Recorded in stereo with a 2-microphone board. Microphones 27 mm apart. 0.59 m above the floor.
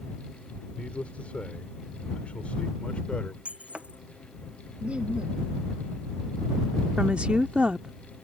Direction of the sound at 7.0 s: 45° right (ahead or behind).